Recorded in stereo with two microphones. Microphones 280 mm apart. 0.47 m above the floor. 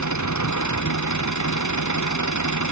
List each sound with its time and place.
0.0 s an engine running: 85° left